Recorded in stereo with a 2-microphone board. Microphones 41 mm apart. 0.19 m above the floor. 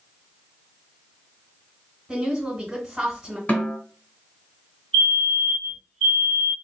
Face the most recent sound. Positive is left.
turn(degrees=20)  # may be behind; listen again after turning